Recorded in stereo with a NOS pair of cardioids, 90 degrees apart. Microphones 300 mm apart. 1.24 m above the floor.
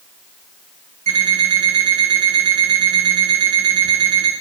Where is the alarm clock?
65° right, 9 m.